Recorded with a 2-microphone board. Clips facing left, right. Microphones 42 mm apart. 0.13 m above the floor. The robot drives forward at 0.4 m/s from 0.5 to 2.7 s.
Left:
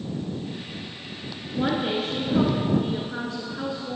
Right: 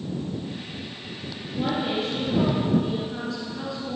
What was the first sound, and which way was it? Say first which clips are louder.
A woman speaking: left 1 dB; 40° left (ahead or behind).